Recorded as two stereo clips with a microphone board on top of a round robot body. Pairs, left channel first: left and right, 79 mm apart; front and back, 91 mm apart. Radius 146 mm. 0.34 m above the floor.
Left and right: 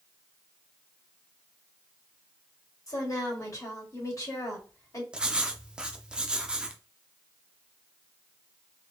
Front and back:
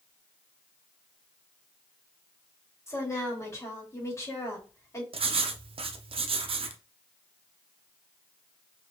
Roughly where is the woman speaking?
Ahead left.